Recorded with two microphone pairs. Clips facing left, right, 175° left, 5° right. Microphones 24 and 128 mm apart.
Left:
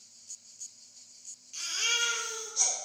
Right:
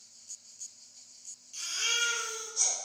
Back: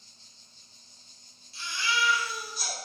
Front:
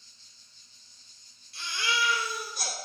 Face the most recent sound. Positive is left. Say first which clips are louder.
# left 1 dB, even
turn(degrees=25)